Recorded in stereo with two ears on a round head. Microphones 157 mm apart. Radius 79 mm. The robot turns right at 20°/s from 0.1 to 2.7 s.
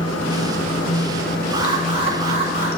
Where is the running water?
95° left, 1.2 m; by 2.8 s 145° left, 1.2 m.